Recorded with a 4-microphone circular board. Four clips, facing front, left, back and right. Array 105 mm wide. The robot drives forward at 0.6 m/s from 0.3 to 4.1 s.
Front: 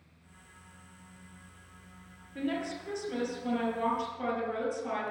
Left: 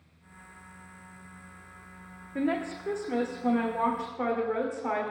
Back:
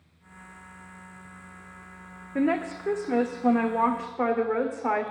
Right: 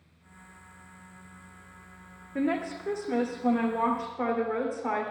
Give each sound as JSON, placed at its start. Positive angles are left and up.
{"t": 2.4, "sound": "a woman speaking", "azimuth_deg": -175, "distance_m": 1.7}